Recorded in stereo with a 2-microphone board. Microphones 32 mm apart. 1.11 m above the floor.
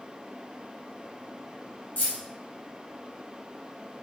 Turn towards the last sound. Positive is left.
turn(degrees=80)